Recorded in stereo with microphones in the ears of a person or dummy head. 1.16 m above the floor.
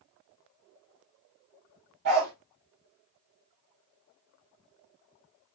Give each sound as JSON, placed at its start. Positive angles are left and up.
{"t": 2.0, "sound": "a dog barking", "side_deg": -60, "distance_m": 1.5}